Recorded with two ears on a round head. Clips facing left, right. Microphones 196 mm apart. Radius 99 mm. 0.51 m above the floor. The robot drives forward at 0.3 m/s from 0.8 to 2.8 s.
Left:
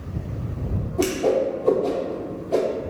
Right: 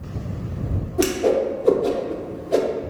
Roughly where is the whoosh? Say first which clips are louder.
Right 1 dB; centre.